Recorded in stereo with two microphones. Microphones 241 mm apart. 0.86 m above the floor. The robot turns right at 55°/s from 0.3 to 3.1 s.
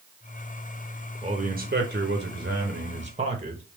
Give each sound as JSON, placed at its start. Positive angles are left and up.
{"t": 1.2, "sound": "a man speaking", "azimuth_deg": -145, "distance_m": 0.9}